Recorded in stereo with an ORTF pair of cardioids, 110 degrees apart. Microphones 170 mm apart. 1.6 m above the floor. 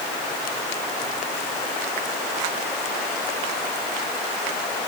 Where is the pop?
I don't hear a pop.